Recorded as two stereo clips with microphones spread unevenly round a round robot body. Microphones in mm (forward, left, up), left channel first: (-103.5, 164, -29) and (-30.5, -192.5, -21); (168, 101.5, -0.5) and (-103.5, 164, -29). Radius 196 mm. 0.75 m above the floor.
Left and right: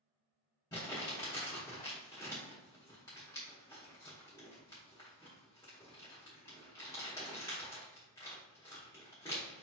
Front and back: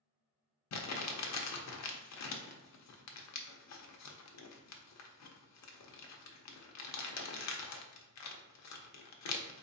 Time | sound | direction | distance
0.7 | crumpling | 20° left | 0.7 m